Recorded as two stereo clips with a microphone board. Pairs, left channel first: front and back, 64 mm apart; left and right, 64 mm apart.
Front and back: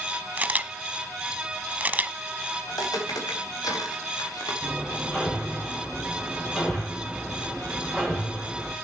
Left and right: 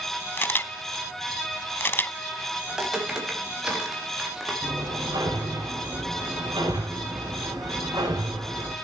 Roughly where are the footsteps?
Ahead.